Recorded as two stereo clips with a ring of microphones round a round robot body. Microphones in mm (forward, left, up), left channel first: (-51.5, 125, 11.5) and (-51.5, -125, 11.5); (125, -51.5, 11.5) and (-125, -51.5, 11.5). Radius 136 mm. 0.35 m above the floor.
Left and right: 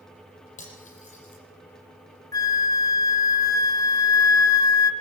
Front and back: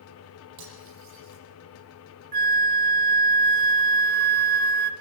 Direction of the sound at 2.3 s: 165° left.